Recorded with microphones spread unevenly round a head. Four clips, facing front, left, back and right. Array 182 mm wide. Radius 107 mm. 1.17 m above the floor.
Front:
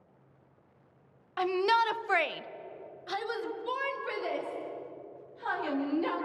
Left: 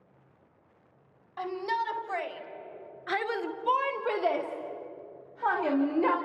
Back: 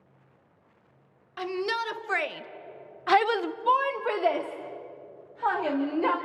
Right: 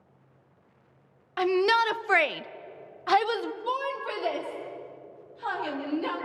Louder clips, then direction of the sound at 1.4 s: Right 8 dB, front 4 dB; 80° right.